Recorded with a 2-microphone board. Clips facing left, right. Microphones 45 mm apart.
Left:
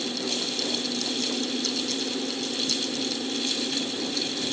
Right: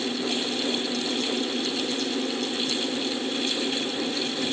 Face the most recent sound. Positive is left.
No sound to turn to.